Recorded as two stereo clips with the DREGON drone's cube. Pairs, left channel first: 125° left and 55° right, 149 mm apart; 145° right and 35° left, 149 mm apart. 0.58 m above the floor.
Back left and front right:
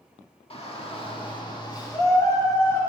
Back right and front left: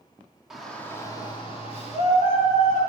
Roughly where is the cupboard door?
I don't hear a cupboard door.